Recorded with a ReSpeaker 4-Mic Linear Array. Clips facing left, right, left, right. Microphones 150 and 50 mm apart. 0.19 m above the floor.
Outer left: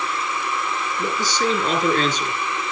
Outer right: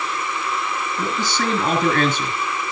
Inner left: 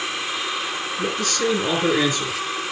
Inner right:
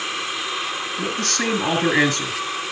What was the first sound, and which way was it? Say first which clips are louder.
A man speaking: outer left 1 dB, inner left 2 dB; 65° right (ahead or behind).